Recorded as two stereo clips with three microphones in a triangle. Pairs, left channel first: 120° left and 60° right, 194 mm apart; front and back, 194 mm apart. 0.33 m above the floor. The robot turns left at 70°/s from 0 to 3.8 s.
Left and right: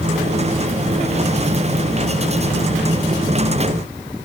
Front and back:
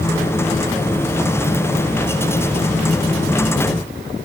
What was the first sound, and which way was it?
Only background noise.